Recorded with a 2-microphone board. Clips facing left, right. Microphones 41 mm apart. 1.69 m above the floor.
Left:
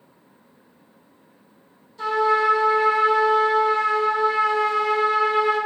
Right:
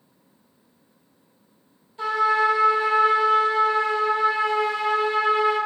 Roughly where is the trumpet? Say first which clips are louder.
Left 1 dB; right.